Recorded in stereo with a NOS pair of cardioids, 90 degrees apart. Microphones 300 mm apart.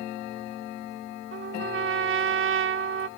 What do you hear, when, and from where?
1.3 s a trumpet: 40° right, 1.2 m